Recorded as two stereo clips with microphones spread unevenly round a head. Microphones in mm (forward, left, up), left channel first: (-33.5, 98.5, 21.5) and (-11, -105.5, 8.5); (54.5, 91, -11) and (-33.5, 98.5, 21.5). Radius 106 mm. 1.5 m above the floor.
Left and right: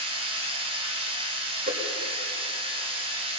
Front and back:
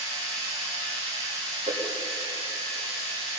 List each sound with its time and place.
0.0 s a machine running: 150° right, 4.5 m
1.7 s a whoosh: 135° right, 3.5 m